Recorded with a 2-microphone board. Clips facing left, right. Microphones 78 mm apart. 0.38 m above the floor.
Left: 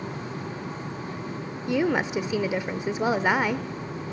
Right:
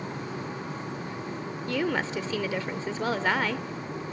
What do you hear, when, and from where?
1.7 s a woman speaking: 15° left (ahead or behind), 0.8 m